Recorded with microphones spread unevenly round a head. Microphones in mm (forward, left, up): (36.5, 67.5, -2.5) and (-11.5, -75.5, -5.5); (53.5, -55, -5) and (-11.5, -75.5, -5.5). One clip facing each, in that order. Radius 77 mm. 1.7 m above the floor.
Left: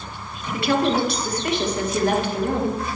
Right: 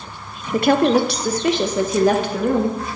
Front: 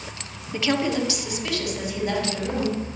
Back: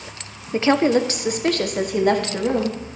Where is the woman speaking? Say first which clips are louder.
Right 5 dB, back 7 dB; 120° right, 0.6 m; by 2.8 s 130° right, 2 m.